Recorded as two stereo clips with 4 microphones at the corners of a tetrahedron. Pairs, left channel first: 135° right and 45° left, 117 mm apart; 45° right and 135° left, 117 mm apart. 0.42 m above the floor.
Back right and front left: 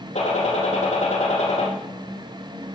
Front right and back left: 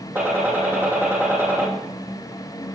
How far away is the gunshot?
About 6.5 m.